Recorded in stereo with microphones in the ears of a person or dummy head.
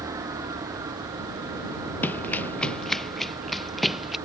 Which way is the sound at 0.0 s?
15° right (ahead or behind).